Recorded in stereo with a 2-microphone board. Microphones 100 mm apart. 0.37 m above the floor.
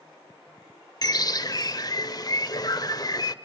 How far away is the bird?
About 0.5 m.